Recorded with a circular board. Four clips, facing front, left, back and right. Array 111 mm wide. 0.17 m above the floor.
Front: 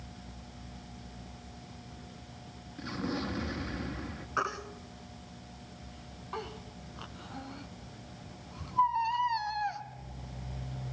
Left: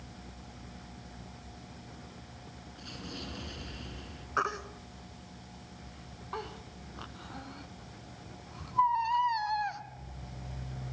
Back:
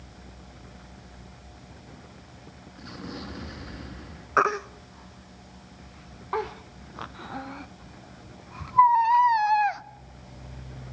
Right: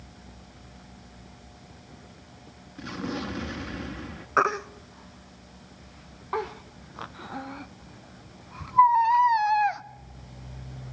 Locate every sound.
2.8 s an explosion: 75° right, 1.9 m
4.4 s a baby crying: 140° right, 0.5 m